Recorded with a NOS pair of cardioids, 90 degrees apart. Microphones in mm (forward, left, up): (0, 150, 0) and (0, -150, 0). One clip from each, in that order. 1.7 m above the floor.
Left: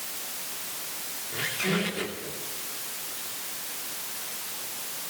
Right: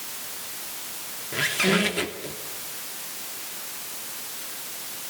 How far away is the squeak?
About 2.5 m.